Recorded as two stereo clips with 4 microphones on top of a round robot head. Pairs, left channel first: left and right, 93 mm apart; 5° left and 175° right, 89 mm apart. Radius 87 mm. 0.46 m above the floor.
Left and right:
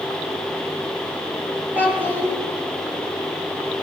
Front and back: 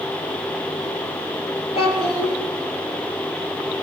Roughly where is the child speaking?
Ahead.